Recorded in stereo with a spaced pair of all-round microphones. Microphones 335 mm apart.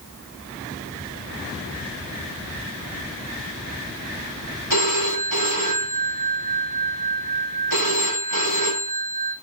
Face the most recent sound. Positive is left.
turn(degrees=-60)  # may be behind; listen again after turning